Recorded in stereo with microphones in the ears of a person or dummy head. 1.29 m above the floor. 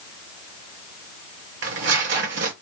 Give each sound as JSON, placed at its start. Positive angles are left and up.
{"t": 1.6, "sound": "tearing paper", "side_deg": -60, "distance_m": 1.5}